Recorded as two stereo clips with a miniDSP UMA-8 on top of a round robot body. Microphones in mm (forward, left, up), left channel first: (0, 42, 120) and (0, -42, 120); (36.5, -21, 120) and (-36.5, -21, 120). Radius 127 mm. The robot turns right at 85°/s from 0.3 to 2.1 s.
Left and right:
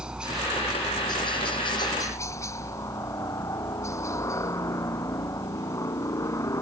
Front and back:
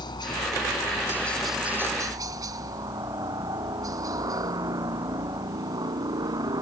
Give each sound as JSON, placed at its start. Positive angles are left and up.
{"t": 0.0, "sound": "a helicopter", "azimuth_deg": -10}